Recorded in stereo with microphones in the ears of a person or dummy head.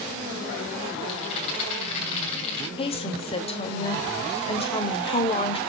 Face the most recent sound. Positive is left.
turn(degrees=30)  # may be behind; listen again after turning